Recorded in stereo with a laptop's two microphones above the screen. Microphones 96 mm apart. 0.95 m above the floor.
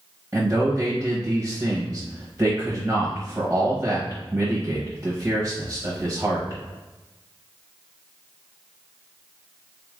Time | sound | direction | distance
0.3 | a man speaking | 15° right (ahead or behind) | 0.8 m